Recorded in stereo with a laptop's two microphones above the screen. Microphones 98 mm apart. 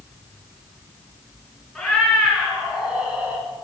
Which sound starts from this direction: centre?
A cat meowing, at 1.8 s.